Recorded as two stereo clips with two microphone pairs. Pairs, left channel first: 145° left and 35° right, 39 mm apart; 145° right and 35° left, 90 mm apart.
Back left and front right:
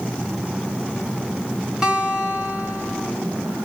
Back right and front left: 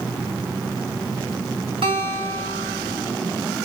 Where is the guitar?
35° left, 3.5 m.